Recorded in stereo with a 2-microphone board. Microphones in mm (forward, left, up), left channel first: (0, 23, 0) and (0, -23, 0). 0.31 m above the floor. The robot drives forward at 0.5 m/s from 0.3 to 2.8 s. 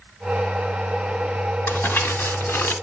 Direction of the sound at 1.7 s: 55° left (ahead or behind).